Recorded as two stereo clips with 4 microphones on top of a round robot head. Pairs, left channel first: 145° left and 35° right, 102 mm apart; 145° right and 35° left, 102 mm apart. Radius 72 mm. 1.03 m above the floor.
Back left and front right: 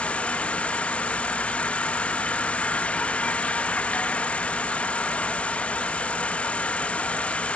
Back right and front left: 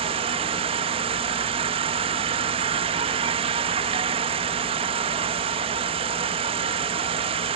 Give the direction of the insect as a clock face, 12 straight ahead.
10 o'clock.